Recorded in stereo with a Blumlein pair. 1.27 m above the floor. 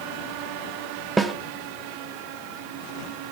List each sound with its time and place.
1.2 s a snare drum: 10° right, 0.6 m